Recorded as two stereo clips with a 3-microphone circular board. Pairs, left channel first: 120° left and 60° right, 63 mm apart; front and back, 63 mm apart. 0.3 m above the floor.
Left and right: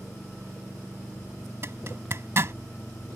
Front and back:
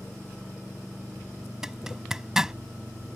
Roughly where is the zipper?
Right.